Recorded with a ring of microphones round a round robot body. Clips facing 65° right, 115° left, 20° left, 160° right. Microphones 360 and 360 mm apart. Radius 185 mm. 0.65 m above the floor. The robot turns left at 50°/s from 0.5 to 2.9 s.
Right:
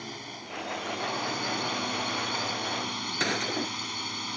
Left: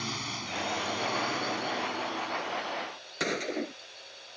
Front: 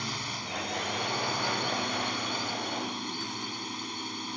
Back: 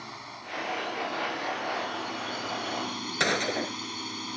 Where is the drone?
55° left; by 4.4 s 65° right.